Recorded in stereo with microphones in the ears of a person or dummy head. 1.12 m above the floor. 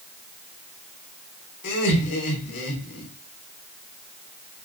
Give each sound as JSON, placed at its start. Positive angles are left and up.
{"t": 1.6, "sound": "laughter", "side_deg": 65, "distance_m": 3.0}